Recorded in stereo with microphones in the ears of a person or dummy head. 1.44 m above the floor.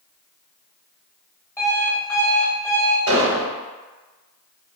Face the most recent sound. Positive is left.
turn(degrees=-75)  # may be behind; listen again after turning